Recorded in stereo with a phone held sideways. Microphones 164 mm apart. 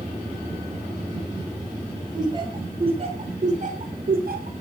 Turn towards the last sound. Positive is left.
turn(degrees=-65)  # may be behind; listen again after turning